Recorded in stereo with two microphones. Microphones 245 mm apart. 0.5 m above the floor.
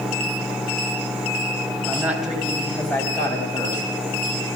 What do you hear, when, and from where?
1.9 s a woman speaking: 5° right (ahead or behind), 3.5 m; by 3.9 s 15° left (ahead or behind), 4 m